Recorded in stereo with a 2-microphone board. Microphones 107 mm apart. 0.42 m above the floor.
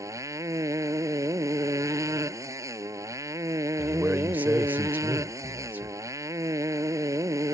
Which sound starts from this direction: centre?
A man speaking, at 3.8 s.